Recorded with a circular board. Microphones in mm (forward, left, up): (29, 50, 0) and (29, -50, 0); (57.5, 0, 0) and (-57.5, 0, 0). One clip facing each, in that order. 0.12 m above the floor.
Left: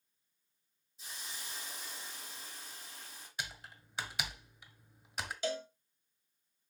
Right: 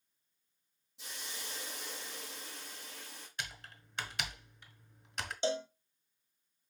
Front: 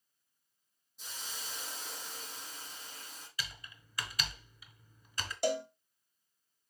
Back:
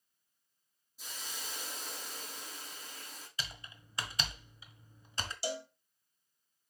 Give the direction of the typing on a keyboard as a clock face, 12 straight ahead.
6 o'clock.